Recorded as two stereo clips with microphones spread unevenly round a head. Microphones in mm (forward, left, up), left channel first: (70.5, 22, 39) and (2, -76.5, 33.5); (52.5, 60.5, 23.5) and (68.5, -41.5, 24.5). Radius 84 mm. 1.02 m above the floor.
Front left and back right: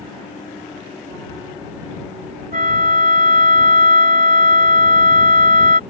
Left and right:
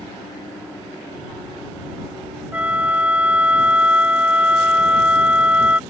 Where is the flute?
160° right.